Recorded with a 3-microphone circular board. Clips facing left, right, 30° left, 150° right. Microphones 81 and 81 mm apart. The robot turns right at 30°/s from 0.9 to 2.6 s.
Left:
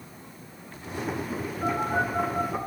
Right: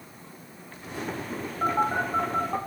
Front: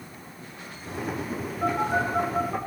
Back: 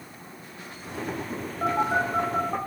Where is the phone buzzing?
140° right, 3.5 m; by 2.6 s 110° right, 3.5 m.